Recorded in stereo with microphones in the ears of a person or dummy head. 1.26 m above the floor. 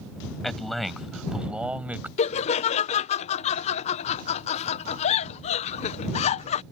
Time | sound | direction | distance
0.4 | a man speaking | 5° left (ahead or behind) | ?
2.2 | laughter | 30° left (ahead or behind) | ?